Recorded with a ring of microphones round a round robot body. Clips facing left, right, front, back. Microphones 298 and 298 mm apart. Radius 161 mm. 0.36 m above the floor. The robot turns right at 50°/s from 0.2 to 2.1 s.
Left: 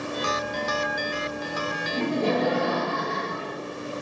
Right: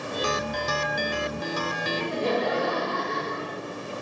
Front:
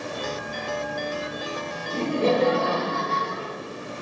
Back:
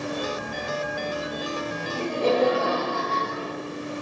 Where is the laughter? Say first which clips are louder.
Left 3 dB, front 1 dB; 55° left, 6 m; by 3.6 s 65° left, 6 m.